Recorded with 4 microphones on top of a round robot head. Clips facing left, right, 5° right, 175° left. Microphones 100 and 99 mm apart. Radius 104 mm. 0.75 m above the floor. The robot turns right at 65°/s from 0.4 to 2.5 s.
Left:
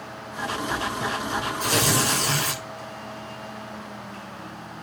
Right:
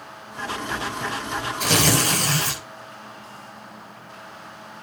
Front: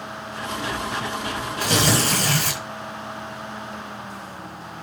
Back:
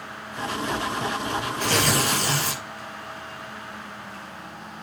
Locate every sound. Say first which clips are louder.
1.6 s tearing paper: right 3 dB, front 3 dB; 85° right, 6.5 m; by 2.6 s 25° right, 6.5 m